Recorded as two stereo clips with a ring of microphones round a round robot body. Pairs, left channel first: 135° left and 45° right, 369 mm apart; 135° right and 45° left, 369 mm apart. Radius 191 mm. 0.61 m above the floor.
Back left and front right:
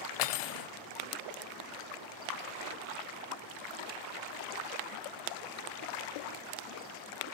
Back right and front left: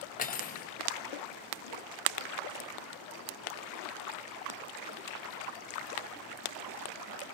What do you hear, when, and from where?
0.2 s cutlery clinking: 155° left, 0.8 m